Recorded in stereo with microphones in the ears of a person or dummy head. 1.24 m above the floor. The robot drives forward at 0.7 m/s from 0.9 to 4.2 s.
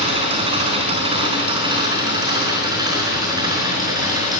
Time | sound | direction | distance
0.0 | an engine running | 30° right (ahead or behind) | 4.5 m